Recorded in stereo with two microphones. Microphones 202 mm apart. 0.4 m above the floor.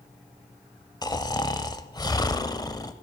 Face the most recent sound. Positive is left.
turn(degrees=20)  # may be behind; listen again after turning